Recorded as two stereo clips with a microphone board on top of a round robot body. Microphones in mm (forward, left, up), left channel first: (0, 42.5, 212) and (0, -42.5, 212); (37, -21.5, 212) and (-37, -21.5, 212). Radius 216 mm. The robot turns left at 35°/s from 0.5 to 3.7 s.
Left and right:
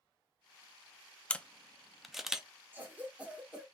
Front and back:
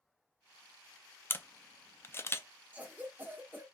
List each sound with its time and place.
1.3 s a camera shutter: 25° left, 0.9 m; by 2.5 s 15° right, 0.9 m
2.7 s a cough: 135° right, 1.3 m; by 3.6 s 165° right, 1.3 m